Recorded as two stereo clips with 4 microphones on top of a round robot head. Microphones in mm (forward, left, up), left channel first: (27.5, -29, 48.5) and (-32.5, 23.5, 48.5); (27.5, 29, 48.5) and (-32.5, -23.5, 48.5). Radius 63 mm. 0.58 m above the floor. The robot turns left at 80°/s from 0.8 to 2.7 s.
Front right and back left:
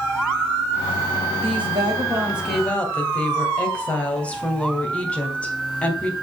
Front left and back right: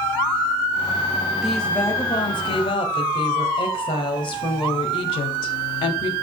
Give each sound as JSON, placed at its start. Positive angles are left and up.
{"t": 1.4, "sound": "a woman speaking", "azimuth_deg": 135, "distance_m": 3.0}